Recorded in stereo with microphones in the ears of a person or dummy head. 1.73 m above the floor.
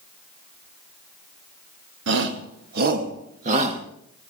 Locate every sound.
2.1 s a shout: 65° right (ahead or behind), 2 m; by 3.8 s 35° right (ahead or behind), 2 m